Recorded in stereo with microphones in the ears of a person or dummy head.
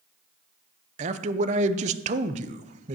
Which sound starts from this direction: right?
A man speaking, at 1.0 s.